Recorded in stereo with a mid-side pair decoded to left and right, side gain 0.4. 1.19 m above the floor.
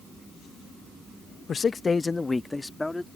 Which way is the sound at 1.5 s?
55° left.